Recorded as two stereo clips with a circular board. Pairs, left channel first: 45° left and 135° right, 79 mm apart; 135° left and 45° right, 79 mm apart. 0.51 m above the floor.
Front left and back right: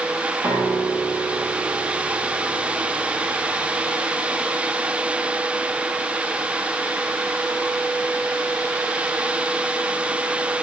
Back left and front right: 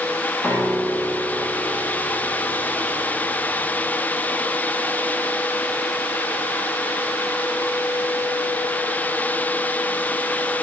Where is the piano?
150° right, 9.5 m.